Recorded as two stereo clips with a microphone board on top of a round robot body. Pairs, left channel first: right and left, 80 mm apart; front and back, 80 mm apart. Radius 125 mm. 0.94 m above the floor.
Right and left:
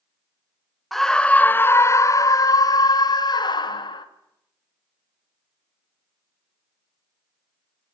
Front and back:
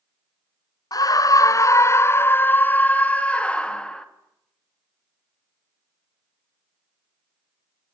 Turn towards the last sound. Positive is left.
turn(degrees=-80)